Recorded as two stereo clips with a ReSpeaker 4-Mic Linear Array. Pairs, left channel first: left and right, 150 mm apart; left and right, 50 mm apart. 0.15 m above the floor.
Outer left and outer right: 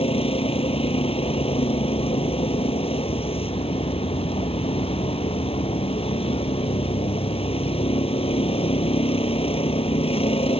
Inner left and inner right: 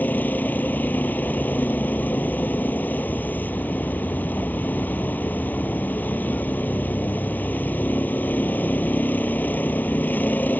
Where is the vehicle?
40° left (ahead or behind).